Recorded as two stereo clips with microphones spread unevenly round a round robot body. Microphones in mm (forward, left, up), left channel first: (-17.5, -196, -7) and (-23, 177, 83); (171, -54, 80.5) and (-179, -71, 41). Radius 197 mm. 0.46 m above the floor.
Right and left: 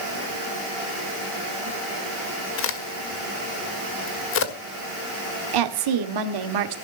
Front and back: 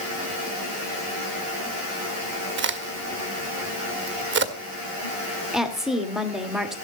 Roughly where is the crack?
Behind right.